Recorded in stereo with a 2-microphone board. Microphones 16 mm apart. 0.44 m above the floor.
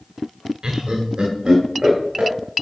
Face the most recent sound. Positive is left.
turn(degrees=-70)  # may be behind; listen again after turning